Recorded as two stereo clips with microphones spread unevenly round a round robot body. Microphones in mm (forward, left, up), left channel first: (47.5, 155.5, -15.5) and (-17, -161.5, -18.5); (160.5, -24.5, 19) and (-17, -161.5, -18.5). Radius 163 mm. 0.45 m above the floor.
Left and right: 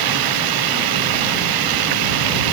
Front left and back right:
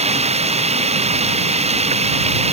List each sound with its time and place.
0.0 s running water: 80° right